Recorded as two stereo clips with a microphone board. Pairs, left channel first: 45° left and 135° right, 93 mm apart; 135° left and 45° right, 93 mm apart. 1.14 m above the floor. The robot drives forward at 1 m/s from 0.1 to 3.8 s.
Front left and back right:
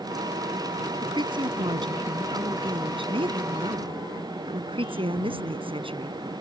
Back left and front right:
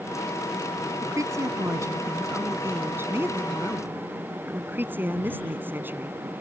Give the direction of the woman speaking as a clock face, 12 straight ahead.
3 o'clock.